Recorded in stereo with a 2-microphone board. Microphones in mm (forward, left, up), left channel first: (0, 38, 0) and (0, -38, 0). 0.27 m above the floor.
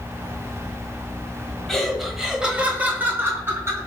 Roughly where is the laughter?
Centre.